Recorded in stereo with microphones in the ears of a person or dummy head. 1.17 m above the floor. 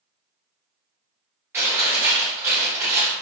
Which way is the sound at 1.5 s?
15° right (ahead or behind).